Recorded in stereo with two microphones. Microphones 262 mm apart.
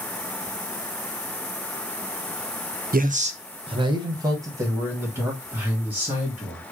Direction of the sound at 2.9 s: 35° right (ahead or behind).